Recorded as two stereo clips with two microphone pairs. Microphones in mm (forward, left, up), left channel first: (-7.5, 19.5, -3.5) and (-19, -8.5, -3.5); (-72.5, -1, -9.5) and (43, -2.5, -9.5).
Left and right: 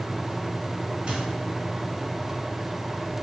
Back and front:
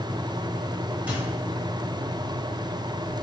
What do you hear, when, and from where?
1.1 s a microwave: 70° right, 1.2 m